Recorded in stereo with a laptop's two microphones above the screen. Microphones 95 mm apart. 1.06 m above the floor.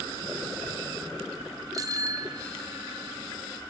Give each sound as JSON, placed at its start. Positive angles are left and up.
{"t": 1.7, "sound": "a bicycle bell", "side_deg": -40}